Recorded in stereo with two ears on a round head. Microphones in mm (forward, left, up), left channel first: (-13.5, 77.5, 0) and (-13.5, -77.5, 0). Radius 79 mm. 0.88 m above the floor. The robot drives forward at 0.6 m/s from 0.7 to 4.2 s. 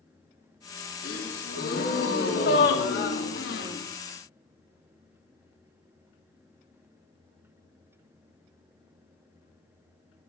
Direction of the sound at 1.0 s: 50° left (ahead or behind).